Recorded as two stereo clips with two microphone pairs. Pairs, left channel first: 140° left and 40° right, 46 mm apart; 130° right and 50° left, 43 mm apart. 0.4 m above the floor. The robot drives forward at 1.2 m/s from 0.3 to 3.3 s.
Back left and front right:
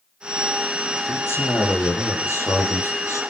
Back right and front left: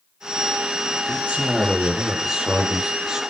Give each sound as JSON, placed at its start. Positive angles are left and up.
{"t": 1.1, "sound": "a man speaking", "azimuth_deg": 115, "distance_m": 10.0}